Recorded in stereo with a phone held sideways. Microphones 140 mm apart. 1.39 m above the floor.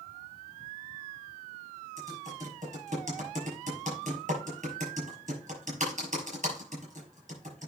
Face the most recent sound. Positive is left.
turn(degrees=-60)  # may be behind; listen again after turning